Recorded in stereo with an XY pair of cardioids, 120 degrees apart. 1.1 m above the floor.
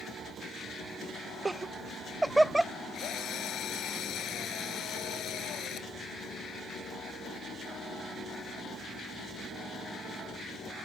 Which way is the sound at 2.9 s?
60° left.